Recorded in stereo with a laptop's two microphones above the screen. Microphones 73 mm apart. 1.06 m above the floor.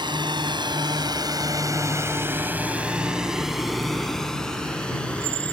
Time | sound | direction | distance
0.0 | a drone | 85° right | ?